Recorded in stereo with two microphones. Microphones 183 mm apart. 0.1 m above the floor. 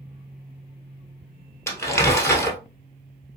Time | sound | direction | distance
1.7 | crumpling | 15° left (ahead or behind) | 1.5 m